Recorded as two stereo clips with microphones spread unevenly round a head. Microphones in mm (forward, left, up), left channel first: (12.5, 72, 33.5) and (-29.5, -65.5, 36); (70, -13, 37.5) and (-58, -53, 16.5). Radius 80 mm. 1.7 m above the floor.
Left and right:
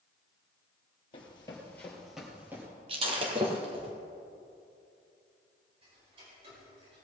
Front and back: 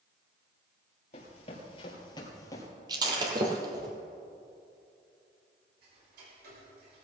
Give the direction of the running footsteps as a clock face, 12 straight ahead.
11 o'clock.